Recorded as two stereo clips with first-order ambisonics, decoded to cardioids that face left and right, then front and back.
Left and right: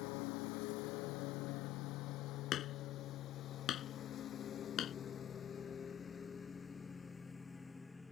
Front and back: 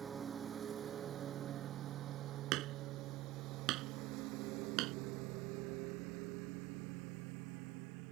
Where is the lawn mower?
110° left; by 8.1 s 170° left.